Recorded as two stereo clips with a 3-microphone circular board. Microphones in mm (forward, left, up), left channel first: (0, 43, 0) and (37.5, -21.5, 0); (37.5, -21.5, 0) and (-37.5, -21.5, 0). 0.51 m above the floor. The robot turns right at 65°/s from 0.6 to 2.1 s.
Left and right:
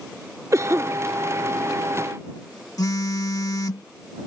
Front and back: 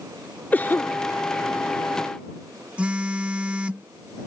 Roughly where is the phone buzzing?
Left.